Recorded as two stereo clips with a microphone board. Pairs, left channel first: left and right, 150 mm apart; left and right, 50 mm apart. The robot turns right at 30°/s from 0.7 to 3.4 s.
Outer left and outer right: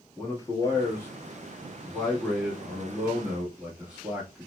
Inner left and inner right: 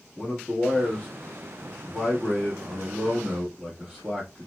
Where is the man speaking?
20° left (ahead or behind), 1.1 m; by 4.5 s 5° right (ahead or behind), 1.1 m.